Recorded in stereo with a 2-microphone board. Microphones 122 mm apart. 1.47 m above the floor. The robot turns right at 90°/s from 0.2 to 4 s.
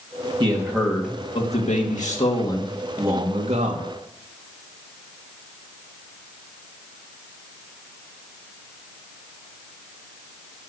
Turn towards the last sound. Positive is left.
turn(degrees=-80)